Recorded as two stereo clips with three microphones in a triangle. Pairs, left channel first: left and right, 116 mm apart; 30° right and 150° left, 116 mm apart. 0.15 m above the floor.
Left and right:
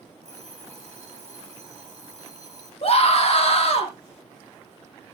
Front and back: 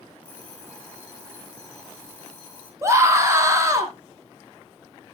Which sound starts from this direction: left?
A scream, at 2.8 s.